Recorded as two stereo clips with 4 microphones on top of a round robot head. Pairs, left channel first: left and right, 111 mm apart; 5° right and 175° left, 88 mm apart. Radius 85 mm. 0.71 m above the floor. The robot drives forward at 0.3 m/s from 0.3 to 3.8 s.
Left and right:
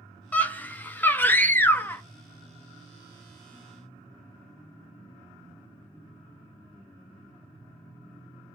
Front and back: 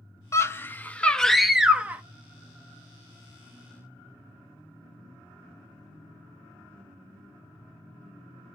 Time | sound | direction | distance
0.3 | a scream | 25° left | 0.7 m